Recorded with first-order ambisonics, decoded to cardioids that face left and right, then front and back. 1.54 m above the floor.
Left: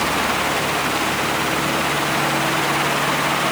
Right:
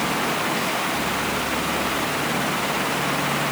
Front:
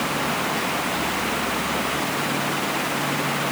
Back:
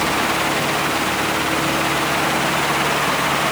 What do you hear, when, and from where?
Only background noise.